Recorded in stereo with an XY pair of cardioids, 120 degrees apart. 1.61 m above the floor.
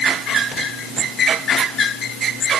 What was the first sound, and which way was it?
Only background noise.